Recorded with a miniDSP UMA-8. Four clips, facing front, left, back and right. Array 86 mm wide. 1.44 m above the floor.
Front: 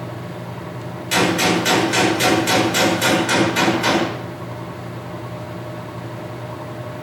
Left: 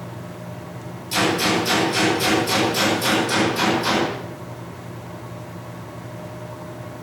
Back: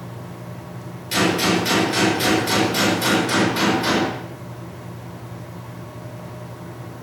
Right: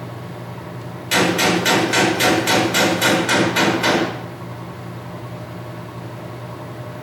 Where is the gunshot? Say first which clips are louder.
Right 3 dB, front 2 dB; 65° right, 8 m.